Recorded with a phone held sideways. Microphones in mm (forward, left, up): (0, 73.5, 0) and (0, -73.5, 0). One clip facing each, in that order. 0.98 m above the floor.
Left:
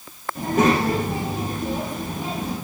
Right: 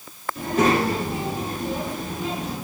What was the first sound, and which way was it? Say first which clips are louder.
A child speaking: left 1 dB; 50° left (ahead or behind).